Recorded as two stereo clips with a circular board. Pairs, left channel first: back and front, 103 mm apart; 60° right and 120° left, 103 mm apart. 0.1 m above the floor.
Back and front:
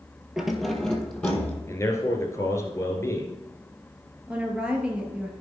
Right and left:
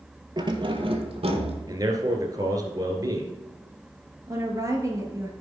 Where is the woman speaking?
75° left, 2 m.